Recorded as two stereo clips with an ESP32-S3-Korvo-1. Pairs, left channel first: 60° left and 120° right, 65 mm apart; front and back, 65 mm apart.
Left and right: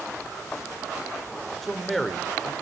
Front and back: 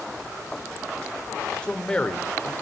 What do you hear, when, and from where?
1.6 s a man speaking: 30° right, 1.0 m